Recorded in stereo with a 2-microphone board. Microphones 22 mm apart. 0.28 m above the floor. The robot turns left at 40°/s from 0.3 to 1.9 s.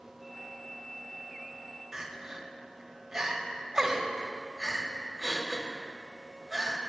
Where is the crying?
20° right (ahead or behind), 0.7 m.